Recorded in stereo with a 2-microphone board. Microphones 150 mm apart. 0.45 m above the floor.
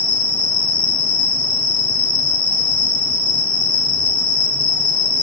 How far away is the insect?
About 1.4 m.